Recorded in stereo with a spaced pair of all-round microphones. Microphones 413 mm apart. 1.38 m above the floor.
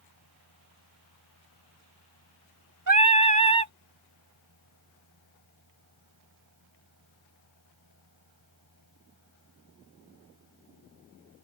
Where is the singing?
45° right (ahead or behind).